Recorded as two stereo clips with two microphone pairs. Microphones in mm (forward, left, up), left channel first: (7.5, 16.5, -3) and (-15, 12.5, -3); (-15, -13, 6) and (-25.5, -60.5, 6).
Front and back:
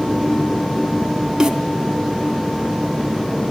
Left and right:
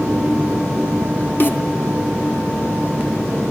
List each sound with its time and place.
1.4 s a snare drum: 125° left, 2.5 m